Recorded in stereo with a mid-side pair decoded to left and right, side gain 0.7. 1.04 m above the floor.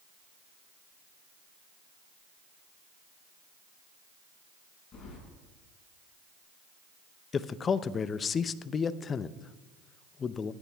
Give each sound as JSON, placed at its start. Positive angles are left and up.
{"t": 4.9, "sound": "keys jangling", "azimuth_deg": 35, "distance_m": 6.5}
{"t": 7.3, "sound": "a man speaking", "azimuth_deg": 30, "distance_m": 0.5}